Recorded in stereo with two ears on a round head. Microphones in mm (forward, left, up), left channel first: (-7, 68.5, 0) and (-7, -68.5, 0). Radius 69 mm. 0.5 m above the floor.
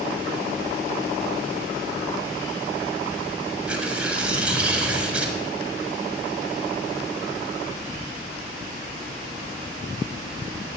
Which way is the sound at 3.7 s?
5° right (ahead or behind).